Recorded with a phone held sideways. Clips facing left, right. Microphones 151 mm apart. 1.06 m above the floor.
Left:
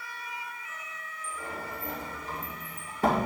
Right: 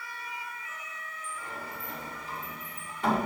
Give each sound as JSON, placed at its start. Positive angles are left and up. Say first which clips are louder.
{"t": 1.2, "sound": "a sliding door", "louder": "left 3 dB", "side_deg": 45, "distance_m": 3.0}